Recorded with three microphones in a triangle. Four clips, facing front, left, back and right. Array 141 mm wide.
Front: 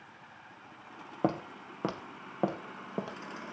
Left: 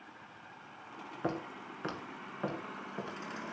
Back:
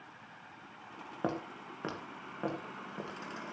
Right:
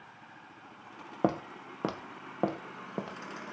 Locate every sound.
1.2 s footsteps: 70° right, 2.5 m; by 3.2 s 50° right, 4 m